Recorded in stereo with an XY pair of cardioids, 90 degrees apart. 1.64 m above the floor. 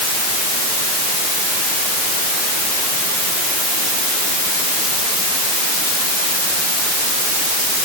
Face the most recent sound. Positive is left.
No sound to turn to.